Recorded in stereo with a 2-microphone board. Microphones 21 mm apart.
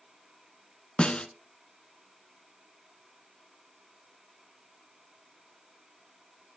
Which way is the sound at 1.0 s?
50° left (ahead or behind).